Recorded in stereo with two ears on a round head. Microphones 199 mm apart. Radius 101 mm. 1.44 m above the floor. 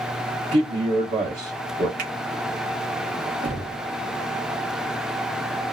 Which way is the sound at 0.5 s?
35° right (ahead or behind).